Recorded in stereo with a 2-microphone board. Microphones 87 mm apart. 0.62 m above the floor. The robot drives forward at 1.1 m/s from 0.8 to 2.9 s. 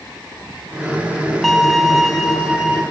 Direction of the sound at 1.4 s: Centre (ahead or behind).